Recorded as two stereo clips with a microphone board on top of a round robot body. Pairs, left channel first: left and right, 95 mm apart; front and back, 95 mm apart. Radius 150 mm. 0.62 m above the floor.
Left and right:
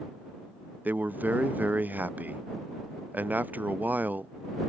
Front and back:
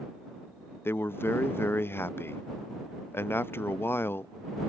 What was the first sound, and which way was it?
A man speaking, 35° right.